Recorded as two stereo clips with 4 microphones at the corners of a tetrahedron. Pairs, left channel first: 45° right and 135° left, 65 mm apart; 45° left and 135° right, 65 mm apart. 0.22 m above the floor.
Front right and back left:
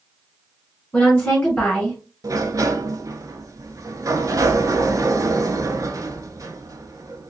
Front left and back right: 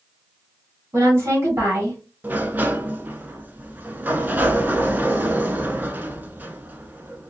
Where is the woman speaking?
110° right, 1.9 m.